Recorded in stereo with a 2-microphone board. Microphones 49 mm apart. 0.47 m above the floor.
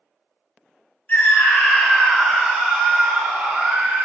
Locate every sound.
1.1 s a scream: 35° left (ahead or behind), 3 m; by 4.0 s 25° right (ahead or behind), 4 m